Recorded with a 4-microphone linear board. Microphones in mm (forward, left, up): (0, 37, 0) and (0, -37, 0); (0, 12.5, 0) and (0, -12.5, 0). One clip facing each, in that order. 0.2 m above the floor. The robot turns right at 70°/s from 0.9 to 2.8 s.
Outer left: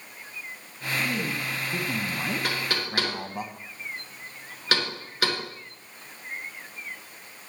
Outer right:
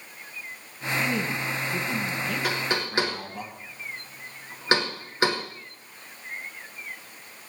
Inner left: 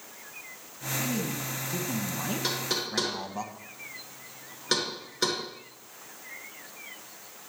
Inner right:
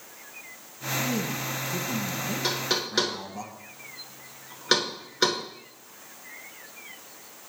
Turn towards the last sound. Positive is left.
turn(degrees=-25)  # may be behind; listen again after turning